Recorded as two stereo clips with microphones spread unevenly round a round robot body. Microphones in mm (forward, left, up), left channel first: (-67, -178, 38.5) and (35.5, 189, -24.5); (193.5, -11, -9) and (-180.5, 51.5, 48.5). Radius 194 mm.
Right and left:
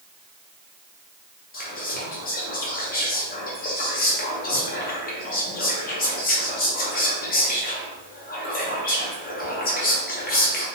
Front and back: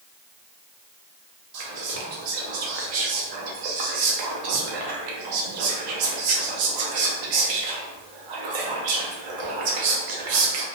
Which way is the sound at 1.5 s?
175° right.